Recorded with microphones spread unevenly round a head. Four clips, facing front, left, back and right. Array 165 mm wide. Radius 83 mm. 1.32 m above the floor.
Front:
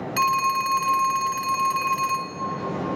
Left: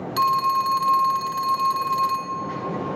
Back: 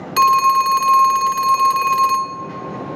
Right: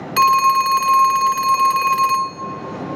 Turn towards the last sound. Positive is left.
turn(degrees=-145)